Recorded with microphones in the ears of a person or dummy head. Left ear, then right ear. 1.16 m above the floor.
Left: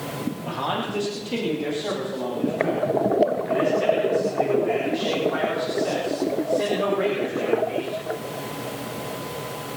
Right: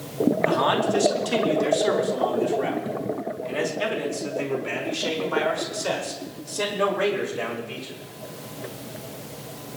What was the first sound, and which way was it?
A man speaking, 55° right (ahead or behind).